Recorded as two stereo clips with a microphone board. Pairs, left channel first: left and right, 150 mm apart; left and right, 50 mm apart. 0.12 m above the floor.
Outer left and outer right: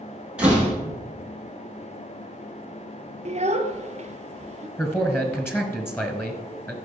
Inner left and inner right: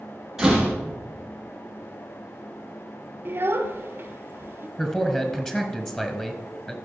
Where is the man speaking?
15° left (ahead or behind), 1.3 m.